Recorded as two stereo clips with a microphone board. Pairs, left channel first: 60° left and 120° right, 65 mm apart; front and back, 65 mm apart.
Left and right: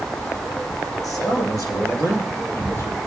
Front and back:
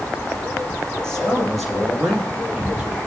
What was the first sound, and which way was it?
A man speaking, 80° left.